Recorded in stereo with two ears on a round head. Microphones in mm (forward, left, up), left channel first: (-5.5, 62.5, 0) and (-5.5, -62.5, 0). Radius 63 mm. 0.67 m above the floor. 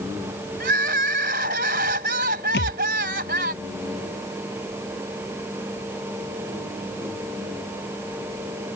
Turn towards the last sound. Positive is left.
turn(degrees=90)